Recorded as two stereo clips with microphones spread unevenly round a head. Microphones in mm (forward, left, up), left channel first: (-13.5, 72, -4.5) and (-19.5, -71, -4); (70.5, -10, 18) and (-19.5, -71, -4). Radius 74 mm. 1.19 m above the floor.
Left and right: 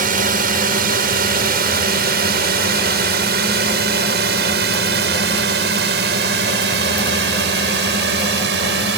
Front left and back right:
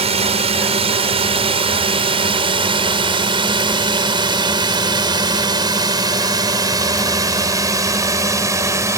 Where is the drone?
120° right; by 9.0 s 85° right.